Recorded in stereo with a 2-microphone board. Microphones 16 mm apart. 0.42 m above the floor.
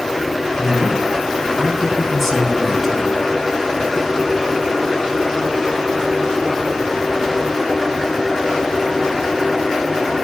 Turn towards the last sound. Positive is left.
turn(degrees=30)  # may be behind; listen again after turning